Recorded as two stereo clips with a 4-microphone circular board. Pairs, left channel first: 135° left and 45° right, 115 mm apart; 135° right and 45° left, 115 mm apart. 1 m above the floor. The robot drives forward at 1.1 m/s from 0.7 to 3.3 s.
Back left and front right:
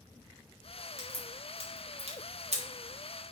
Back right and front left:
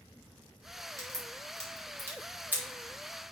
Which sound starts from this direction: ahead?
A crack, at 1.0 s.